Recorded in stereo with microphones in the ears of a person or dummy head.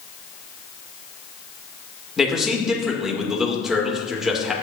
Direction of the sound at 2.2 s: 5° right (ahead or behind).